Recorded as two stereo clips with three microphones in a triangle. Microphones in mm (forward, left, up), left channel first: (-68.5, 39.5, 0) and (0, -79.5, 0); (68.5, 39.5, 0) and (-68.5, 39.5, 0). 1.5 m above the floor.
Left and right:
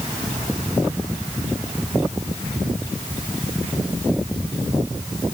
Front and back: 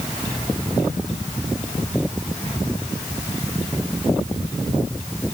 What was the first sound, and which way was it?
Only background noise.